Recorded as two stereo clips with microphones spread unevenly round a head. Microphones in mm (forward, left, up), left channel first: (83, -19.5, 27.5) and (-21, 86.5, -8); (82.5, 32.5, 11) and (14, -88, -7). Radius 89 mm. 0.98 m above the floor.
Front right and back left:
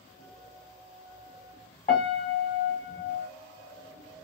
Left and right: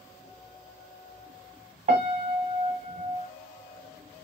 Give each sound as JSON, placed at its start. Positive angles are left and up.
{"t": 1.9, "sound": "a piano", "azimuth_deg": -105, "distance_m": 1.3}